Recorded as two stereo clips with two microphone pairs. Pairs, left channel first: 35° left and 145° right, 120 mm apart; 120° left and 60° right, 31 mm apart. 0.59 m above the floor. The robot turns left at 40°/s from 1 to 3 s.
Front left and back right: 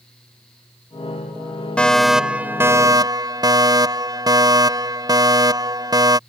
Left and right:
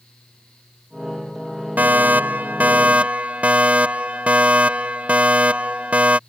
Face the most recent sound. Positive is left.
turn(degrees=-90)